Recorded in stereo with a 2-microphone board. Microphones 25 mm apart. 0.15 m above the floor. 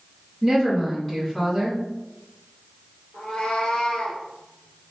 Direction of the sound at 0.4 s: 25° left (ahead or behind).